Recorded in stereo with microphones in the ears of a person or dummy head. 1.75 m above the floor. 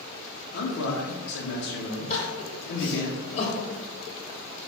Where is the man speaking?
70° left (ahead or behind), 0.7 m.